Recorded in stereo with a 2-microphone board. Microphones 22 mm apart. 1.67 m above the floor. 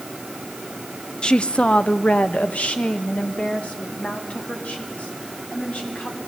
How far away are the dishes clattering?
I don't hear dishes clattering.